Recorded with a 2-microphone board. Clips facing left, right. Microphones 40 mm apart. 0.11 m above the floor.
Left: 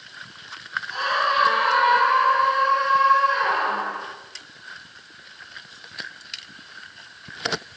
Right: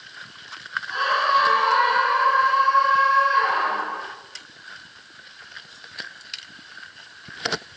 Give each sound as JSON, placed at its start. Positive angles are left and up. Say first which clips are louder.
{"t": 0.9, "sound": "a scream", "louder": "right 2 dB", "side_deg": -20, "distance_m": 1.3}